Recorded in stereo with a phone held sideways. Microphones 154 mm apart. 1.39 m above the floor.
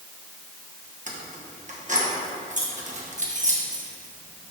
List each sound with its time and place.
1.1 s keys jangling: 50° right (ahead or behind), 1.0 m